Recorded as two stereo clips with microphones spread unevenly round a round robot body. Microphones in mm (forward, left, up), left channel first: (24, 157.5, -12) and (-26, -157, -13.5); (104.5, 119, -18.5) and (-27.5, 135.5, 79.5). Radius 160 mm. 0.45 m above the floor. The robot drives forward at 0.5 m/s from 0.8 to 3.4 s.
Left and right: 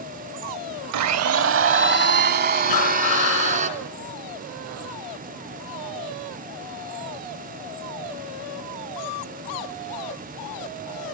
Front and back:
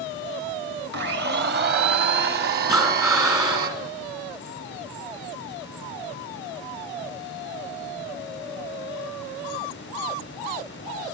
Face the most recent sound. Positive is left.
turn(degrees=105)